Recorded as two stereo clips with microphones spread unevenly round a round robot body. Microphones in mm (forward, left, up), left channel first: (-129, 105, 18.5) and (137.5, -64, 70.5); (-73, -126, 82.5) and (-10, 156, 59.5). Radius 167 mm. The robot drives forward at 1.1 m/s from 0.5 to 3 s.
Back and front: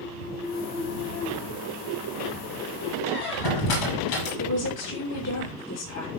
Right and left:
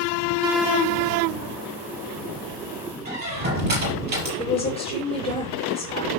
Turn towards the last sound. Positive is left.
turn(degrees=-175)